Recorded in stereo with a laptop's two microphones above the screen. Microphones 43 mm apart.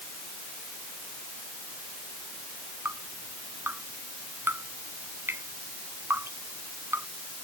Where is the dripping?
65° right (ahead or behind).